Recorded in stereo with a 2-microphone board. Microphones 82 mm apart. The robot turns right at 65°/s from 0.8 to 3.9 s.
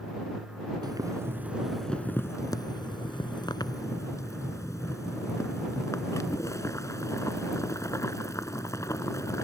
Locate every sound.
0.8 s boiling: 60° right; by 9.4 s 140° left